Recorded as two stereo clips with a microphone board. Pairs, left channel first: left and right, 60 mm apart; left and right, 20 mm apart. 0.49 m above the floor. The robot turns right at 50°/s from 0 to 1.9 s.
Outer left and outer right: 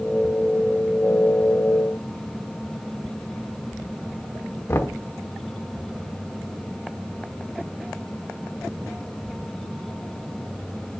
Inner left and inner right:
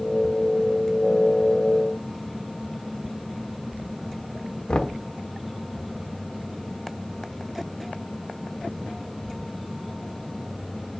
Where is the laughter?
No laughter in this recording.